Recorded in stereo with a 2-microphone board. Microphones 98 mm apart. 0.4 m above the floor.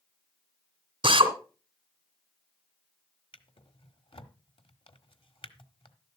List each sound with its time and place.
1.0 s a drill: 55° right (ahead or behind), 2 m
3.3 s a drawer: 70° left (ahead or behind), 1.2 m